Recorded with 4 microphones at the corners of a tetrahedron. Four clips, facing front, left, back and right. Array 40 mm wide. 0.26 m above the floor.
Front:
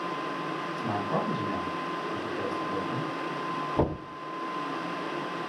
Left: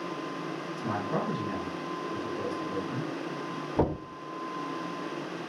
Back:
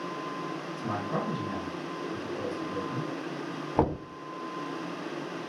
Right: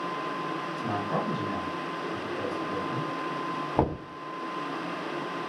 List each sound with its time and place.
0.8 s a man speaking: 40° right, 1.8 m
3.8 s knocking: 135° right, 1.2 m